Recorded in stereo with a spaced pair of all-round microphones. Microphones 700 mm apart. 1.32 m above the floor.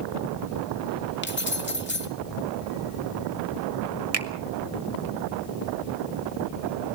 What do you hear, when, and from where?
1.2 s keys jangling: 15° left (ahead or behind), 1.6 m
4.1 s a finger snap: 55° right (ahead or behind), 1.5 m